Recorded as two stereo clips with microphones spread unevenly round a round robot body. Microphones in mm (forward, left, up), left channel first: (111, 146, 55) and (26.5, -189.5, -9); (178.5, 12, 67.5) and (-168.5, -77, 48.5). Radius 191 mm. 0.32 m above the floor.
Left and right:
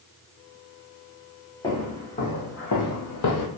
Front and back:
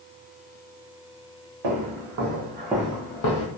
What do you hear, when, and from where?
1.6 s footsteps: 155° left, 1.2 m; by 3.5 s 40° left, 0.7 m